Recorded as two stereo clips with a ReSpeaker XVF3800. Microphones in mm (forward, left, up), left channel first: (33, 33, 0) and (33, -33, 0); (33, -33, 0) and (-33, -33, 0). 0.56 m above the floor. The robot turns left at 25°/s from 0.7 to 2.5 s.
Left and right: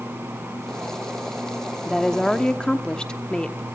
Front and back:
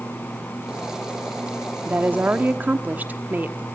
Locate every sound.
1.9 s a woman speaking: 170° left, 0.9 m; by 3.6 s 155° left, 0.9 m